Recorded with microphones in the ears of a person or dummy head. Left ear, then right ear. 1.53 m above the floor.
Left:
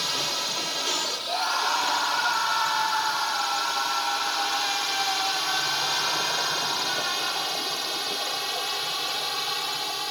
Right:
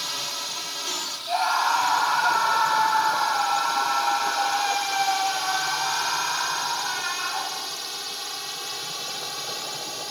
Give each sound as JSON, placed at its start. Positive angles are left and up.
{"t": 0.0, "sound": "a drone", "side_deg": 10}
{"t": 1.3, "sound": "a scream", "side_deg": -25}